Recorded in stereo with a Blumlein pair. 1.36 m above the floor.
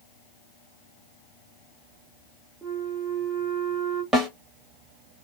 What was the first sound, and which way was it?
A flute, 15° right.